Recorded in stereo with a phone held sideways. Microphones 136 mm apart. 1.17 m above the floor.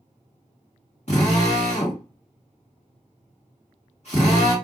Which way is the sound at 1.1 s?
60° left (ahead or behind).